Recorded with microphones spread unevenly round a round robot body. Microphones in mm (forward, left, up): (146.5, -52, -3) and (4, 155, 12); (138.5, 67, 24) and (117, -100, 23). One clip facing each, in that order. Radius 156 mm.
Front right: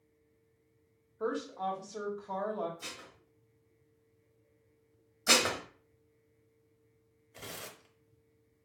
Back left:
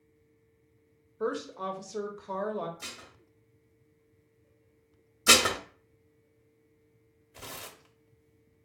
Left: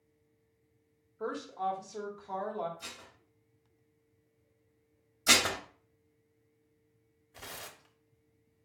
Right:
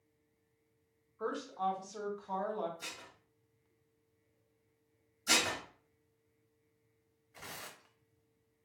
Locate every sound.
1.2 s a woman speaking: 155° left, 0.7 m
2.8 s dishes clattering: 160° right, 1.0 m
5.3 s dishes clattering: 75° left, 0.6 m
7.3 s tearing paper: 45° left, 0.6 m